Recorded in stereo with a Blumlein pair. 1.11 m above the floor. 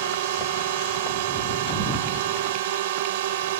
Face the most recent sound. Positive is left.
turn(degrees=-55)